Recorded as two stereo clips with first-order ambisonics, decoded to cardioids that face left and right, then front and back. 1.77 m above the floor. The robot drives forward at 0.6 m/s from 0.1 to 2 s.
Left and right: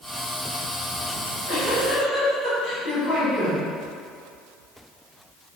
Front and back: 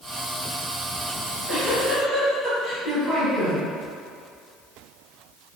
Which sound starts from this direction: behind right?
A giggle, at 1.2 s.